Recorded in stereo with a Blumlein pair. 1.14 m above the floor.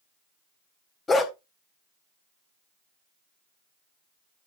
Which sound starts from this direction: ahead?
A dog barking, at 1.1 s.